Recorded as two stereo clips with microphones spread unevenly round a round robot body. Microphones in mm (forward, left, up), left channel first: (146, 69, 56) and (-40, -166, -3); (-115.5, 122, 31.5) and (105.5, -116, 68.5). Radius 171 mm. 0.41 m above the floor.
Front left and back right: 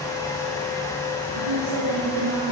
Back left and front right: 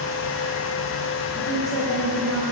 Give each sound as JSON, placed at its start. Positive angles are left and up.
{"t": 1.4, "sound": "a woman speaking", "azimuth_deg": -155, "distance_m": 9.5}